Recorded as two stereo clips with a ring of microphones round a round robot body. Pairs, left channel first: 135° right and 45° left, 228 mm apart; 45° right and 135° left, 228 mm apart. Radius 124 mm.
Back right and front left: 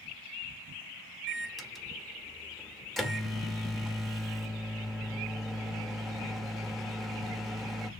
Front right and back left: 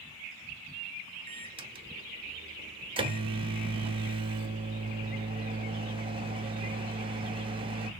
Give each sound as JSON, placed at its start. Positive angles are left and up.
{"t": 1.3, "sound": "a microwave", "azimuth_deg": 135, "distance_m": 1.0}